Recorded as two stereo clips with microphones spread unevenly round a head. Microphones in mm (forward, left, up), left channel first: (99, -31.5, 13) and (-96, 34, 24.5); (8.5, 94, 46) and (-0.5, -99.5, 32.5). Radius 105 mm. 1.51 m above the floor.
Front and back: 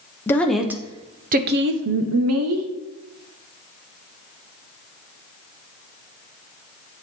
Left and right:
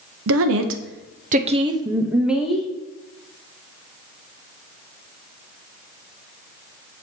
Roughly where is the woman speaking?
Right.